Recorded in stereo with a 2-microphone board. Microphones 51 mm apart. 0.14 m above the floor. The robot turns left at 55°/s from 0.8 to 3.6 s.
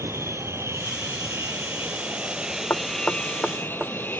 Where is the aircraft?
75° right; by 4.2 s 135° left.